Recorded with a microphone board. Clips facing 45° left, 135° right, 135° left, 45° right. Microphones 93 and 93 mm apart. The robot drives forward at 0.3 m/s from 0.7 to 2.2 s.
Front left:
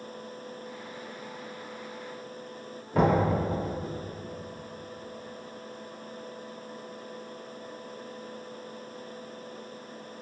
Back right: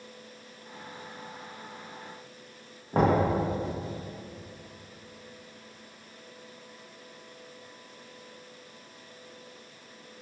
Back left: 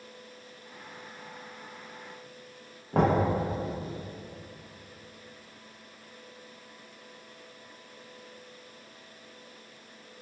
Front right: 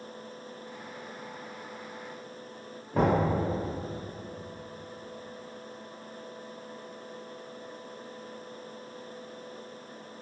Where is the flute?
No flute in this recording.